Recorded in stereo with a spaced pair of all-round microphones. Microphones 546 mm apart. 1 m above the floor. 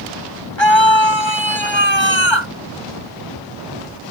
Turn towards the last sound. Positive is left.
turn(degrees=55)  # may be behind; listen again after turning